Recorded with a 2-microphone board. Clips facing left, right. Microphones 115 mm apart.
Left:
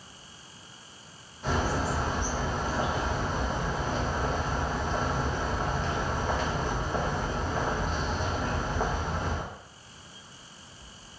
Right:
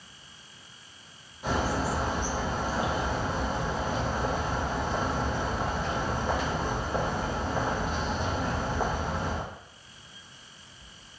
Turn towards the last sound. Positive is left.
turn(degrees=-5)  # may be behind; listen again after turning